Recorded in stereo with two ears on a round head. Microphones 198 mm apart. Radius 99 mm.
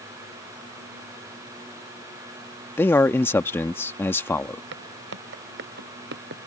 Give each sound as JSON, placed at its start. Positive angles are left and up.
{"t": 2.8, "sound": "a man speaking", "side_deg": 10}
{"t": 4.7, "sound": "footsteps", "side_deg": -55}